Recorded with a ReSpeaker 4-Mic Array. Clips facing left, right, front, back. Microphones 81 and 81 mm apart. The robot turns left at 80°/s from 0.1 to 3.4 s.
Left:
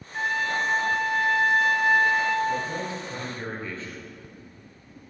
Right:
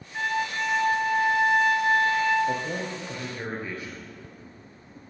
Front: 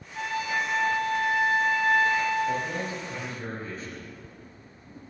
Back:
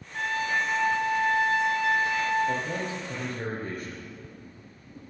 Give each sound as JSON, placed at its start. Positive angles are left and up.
{"t": 0.1, "sound": "a trumpet", "azimuth_deg": 170, "distance_m": 1.8}
{"t": 2.5, "sound": "a man speaking", "azimuth_deg": -90, "distance_m": 3.0}